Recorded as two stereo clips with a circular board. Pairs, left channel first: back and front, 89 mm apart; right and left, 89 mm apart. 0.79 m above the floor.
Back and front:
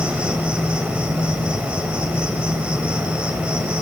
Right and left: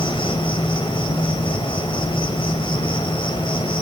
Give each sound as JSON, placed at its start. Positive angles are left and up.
{"t": 0.0, "sound": "an insect", "azimuth_deg": -75, "distance_m": 4.5}